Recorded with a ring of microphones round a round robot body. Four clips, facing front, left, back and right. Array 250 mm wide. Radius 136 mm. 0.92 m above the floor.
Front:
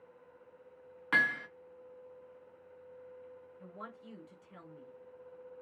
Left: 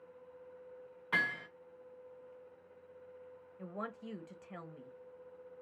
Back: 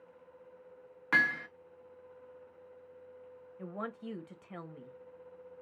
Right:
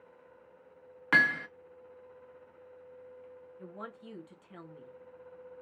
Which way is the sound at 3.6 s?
165° left.